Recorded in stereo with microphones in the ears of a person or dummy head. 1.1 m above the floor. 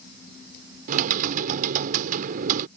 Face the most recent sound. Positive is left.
turn(degrees=-45)  # may be behind; listen again after turning